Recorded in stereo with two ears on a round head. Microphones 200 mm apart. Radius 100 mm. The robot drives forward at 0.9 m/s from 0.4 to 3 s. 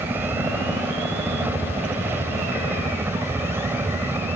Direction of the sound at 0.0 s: 10° right (ahead or behind).